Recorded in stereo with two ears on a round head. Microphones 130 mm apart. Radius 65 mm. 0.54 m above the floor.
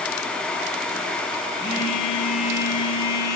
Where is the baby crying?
No baby crying in this recording.